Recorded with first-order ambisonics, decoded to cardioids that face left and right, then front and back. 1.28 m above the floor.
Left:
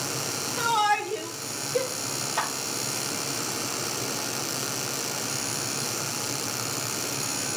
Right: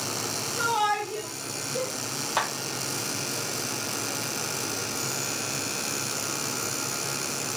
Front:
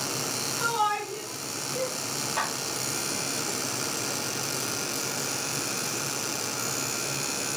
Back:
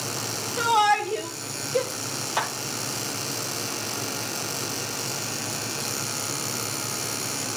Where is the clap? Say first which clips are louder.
Right 2 dB, back 3 dB; 110° right, 3 m.